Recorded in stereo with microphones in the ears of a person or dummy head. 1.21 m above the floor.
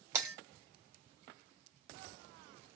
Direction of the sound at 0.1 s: 20° right (ahead or behind).